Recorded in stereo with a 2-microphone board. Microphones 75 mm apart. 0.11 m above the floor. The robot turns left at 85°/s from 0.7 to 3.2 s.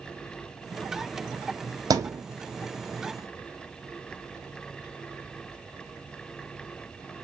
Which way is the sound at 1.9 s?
60° right (ahead or behind).